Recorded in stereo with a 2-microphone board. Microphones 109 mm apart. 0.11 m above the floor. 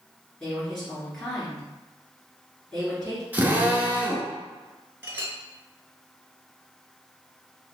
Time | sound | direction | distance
0.4 | a woman speaking | 5° left (ahead or behind) | 1.6 m
3.3 | a drill | 15° right (ahead or behind) | 0.6 m
5.0 | a clink | 20° right (ahead or behind) | 0.7 m